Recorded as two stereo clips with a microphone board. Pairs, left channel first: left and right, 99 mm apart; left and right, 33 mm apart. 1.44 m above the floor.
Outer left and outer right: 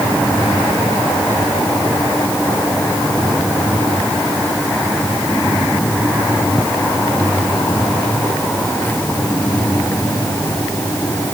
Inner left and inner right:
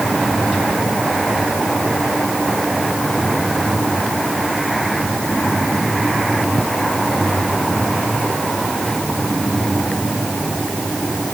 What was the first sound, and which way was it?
Only background noise.